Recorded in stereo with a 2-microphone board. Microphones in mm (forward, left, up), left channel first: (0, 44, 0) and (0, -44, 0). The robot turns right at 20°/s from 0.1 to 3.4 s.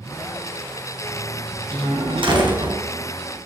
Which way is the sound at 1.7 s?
80° right.